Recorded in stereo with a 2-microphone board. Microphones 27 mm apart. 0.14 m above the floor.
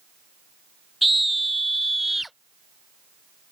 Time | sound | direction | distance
1.0 | a scream | centre (ahead or behind) | ?